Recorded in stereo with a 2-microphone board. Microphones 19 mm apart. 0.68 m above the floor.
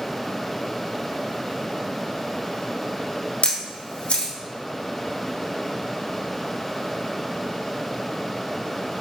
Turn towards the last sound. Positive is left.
turn(degrees=75)  # may be behind; listen again after turning